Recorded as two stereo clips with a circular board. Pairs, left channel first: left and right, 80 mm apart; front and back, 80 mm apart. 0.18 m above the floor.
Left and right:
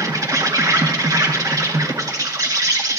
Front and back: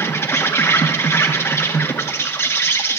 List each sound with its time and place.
0.0 s an insect: 55° right, 1.9 m